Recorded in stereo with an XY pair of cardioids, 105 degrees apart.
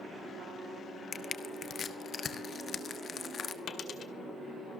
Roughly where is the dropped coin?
Ahead left.